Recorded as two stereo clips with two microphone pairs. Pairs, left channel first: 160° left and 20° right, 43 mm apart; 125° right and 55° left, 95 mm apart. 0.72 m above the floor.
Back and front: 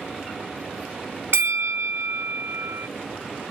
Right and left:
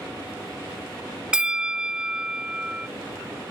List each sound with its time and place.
1.3 s a bell: 20° right